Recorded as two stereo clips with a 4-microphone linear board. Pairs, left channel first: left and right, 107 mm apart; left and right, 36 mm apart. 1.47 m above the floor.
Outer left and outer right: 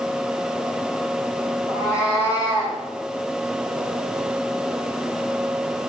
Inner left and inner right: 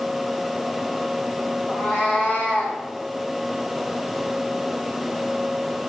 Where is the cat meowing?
30° left (ahead or behind), 4.5 m; by 2.8 s 35° left (ahead or behind), 5 m.